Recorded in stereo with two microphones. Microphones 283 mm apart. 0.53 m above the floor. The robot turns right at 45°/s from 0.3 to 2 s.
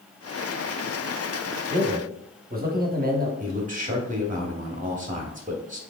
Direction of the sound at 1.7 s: 25° right (ahead or behind).